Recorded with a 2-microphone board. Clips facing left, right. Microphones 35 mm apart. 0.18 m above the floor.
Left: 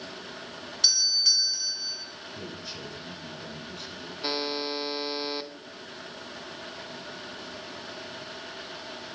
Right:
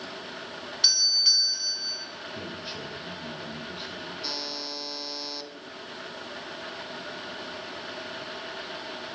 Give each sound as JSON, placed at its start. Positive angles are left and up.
{"t": 0.8, "sound": "a doorbell", "side_deg": -10, "distance_m": 2.0}
{"t": 2.4, "sound": "a man speaking", "side_deg": -20, "distance_m": 3.0}
{"t": 4.2, "sound": "a buzzer", "side_deg": 30, "distance_m": 0.6}